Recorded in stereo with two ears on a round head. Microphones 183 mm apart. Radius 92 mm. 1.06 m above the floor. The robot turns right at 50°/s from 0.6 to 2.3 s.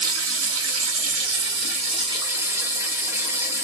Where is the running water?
100° right, 0.9 m; by 3.6 s 15° right, 0.9 m.